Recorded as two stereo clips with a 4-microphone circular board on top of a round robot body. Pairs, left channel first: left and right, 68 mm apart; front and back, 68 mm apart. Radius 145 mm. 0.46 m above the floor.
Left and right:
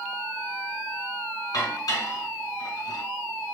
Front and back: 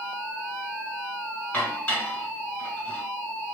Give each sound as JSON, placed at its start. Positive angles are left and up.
{"t": 1.5, "sound": "dishes clattering", "azimuth_deg": 70, "distance_m": 1.6}